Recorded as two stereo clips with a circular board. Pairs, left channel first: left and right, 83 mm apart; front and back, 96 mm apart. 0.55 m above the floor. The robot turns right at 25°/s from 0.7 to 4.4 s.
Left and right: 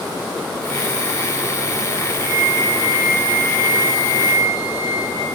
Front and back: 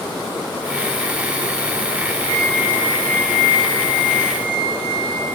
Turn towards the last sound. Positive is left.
turn(degrees=40)